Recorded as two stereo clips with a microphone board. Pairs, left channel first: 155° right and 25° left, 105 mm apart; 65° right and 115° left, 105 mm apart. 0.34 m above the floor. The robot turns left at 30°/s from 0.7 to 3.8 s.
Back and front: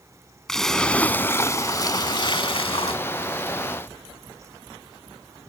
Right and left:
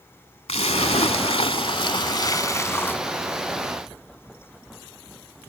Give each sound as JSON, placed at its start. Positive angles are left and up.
{"t": 0.5, "sound": "a splash", "azimuth_deg": -70}